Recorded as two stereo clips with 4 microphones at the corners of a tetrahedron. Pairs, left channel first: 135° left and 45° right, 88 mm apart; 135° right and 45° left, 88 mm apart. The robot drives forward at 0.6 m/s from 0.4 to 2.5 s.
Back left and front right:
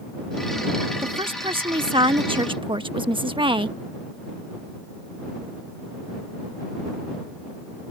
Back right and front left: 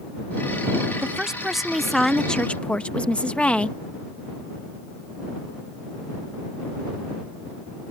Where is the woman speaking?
35° right; by 3.8 s 60° right.